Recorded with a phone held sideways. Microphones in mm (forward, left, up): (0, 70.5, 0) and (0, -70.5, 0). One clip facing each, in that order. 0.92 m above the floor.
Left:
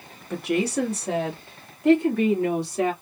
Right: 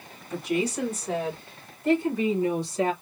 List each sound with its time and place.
0.3 s a woman speaking: 65° left (ahead or behind), 1.7 m